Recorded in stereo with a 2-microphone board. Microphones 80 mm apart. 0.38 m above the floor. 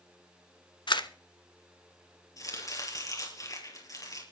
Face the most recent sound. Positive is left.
turn(degrees=45)  # may be behind; listen again after turning